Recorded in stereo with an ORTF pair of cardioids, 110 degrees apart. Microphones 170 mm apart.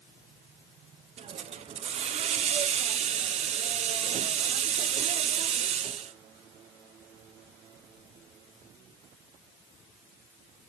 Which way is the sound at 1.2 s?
40° right.